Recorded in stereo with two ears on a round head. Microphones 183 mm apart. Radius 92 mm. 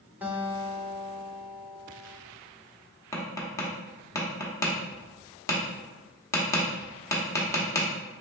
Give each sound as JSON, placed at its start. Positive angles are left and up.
{"t": 0.2, "sound": "a guitar", "side_deg": -10, "distance_m": 0.8}
{"t": 3.1, "sound": "tapping", "side_deg": 15, "distance_m": 1.0}